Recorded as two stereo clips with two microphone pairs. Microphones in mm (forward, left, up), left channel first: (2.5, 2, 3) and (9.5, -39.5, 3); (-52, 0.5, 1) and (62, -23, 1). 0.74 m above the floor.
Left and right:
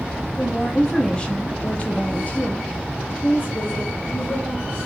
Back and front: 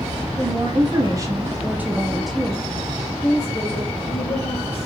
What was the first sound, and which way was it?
A woman speaking, 20° left.